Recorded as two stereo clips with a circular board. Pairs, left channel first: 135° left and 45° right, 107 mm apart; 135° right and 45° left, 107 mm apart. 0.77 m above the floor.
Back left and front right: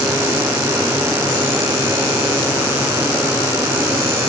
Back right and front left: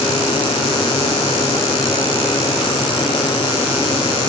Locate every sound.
Only background noise.